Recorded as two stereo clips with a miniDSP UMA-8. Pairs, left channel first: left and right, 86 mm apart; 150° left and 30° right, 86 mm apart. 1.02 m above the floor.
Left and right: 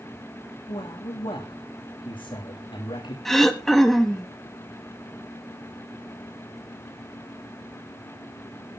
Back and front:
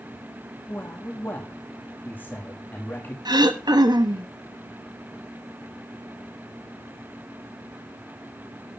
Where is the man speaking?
85° left, 2.5 m.